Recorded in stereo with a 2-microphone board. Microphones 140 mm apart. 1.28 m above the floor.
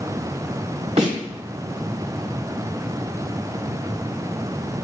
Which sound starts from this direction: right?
A snare drum, at 1.0 s.